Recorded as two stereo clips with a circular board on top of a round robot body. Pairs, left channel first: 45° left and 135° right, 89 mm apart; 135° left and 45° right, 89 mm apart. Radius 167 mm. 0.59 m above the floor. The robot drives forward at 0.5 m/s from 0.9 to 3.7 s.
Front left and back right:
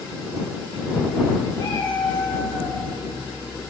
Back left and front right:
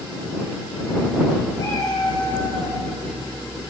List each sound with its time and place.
1.6 s a cat meowing: 85° left, 3 m; by 2.8 s 95° left, 3 m